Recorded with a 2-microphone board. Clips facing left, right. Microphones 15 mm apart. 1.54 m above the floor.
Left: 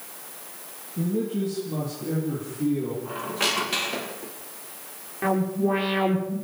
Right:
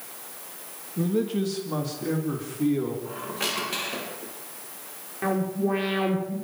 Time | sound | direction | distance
1.0 | a man speaking | 65° right (ahead or behind) | 2.5 m
3.0 | a squeak | 20° left (ahead or behind) | 3.5 m
5.2 | an alarm | centre (ahead or behind) | 6.5 m